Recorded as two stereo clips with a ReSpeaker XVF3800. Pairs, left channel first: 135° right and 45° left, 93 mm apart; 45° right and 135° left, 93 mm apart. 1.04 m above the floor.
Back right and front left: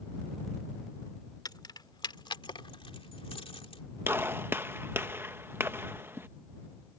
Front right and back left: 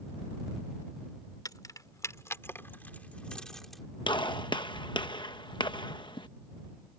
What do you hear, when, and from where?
1.4 s keys jangling: 90° right; by 3.8 s 135° right
4.1 s a gunshot: 20° right